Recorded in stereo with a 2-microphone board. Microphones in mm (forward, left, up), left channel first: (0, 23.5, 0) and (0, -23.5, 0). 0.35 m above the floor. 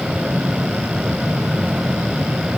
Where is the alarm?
No alarm in this recording.